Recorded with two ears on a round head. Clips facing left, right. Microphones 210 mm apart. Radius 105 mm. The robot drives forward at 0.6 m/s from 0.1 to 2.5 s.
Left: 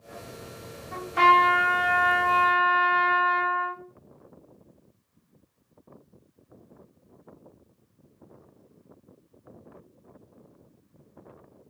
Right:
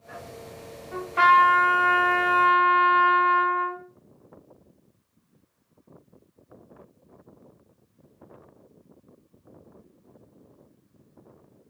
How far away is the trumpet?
About 2.5 m.